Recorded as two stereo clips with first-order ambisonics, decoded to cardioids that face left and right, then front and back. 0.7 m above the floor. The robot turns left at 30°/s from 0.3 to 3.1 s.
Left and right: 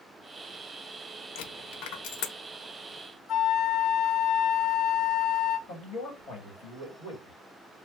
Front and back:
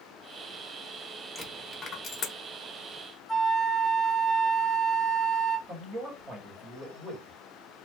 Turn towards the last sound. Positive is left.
turn(degrees=125)